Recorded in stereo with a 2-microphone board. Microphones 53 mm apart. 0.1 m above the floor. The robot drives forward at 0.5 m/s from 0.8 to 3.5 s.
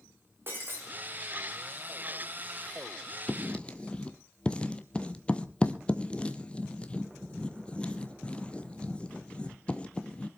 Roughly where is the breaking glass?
Right.